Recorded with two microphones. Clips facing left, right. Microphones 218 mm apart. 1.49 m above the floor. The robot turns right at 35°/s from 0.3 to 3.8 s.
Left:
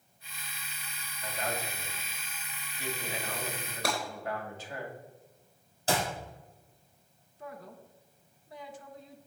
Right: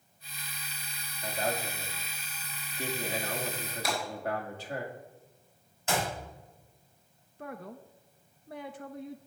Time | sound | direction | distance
1.2 | a man speaking | 150° right | 2.5 m
3.8 | breaking glass | 70° left (ahead or behind) | 4.5 m
5.9 | a clap | 35° left (ahead or behind) | 6 m
7.4 | a man speaking | 65° right (ahead or behind) | 0.7 m